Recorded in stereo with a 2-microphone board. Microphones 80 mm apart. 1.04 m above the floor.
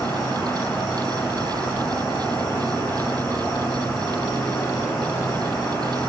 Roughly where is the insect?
Left.